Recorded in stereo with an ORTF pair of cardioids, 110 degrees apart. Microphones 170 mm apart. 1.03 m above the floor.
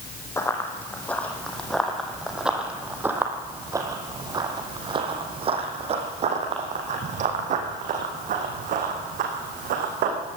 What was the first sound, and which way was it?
Running footsteps, 15° left.